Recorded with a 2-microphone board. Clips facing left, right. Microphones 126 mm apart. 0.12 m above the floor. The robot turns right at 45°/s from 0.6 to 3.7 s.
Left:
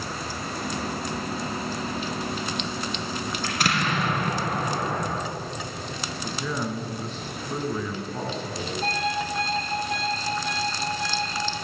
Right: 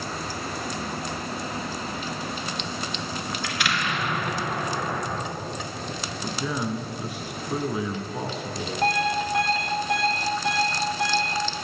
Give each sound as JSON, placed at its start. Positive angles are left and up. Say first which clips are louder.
{"t": 3.4, "sound": "an explosion", "louder": "left 3 dB", "side_deg": 40, "distance_m": 1.5}
{"t": 6.2, "sound": "a man speaking", "louder": "right 1 dB", "side_deg": -10, "distance_m": 1.2}
{"t": 8.8, "sound": "an alarm clock", "louder": "right 5 dB", "side_deg": -70, "distance_m": 1.5}